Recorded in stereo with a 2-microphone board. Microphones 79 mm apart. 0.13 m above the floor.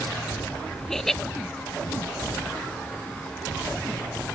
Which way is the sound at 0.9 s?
5° left (ahead or behind).